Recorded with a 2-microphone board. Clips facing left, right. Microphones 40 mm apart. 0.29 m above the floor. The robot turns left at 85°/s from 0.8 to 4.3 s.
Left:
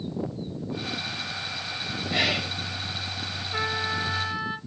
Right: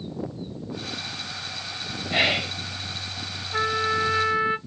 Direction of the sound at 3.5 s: 5° right (ahead or behind).